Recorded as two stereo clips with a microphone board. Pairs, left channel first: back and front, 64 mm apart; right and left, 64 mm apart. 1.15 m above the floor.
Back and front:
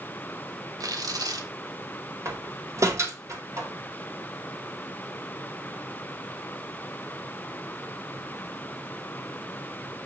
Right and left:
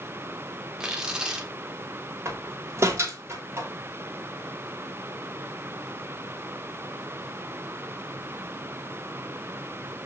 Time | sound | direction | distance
0.8 | tearing paper | 10° left | 1.4 m
2.2 | a door slam | 40° left | 2.5 m